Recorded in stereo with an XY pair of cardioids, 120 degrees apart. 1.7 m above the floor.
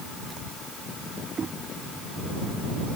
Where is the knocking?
35° right.